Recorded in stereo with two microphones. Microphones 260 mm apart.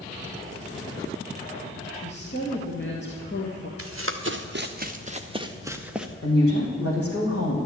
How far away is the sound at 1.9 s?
About 1.9 m.